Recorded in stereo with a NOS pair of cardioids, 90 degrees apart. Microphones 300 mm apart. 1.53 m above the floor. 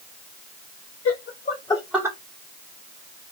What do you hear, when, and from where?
1.1 s laughter: 55° left, 0.9 m; by 2.2 s 15° right, 0.9 m